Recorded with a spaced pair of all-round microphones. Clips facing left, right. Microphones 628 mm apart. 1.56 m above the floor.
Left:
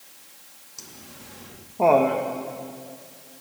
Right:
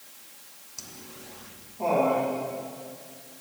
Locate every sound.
0.8 s laughter: 10° right (ahead or behind), 1.0 m; by 2.2 s 75° left (ahead or behind), 1.5 m